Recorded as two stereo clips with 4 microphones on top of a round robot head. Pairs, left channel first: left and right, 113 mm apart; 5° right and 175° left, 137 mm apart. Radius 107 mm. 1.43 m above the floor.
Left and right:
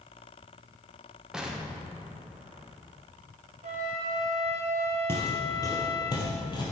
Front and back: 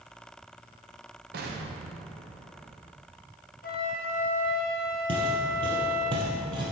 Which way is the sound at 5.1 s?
145° left.